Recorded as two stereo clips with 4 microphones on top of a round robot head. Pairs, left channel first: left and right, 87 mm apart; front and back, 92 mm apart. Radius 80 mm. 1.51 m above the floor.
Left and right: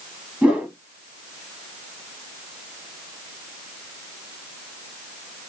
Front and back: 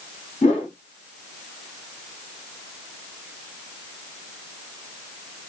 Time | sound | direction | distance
0.4 | a whoosh | 15° right | 1.6 m